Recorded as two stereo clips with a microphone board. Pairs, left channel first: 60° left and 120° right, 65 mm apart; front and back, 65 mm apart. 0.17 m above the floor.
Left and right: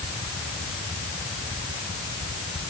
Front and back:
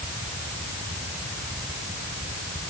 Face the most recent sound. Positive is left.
No sound to turn to.